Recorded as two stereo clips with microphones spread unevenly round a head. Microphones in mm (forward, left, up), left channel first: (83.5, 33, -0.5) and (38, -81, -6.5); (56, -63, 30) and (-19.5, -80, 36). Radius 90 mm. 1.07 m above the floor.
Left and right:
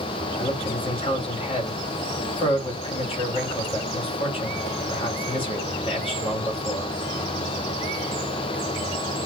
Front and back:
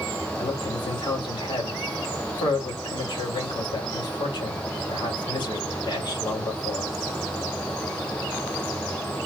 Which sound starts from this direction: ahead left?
A man speaking, at 0.4 s.